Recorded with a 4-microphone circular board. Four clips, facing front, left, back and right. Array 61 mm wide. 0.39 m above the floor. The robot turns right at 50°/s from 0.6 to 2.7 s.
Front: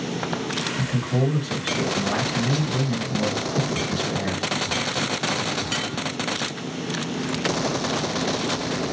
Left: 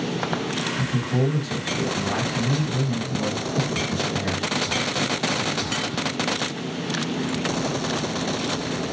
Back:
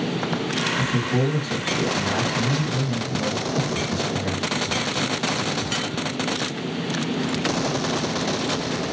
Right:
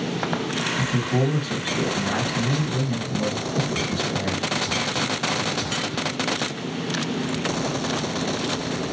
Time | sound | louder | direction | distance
0.8 | a man speaking | right 1 dB, back 1 dB | 105° right | 1.9 m